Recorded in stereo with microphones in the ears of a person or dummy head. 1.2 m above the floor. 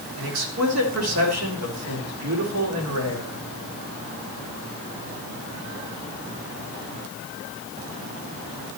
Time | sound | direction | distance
0.2 | a man speaking | 75° right (ahead or behind) | 2.5 m